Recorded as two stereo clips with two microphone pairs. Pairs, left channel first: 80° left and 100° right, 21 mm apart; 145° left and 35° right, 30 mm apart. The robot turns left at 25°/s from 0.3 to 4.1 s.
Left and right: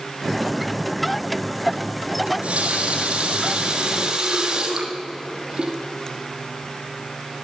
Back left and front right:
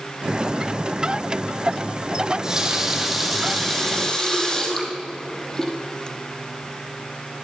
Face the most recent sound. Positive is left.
turn(degrees=-145)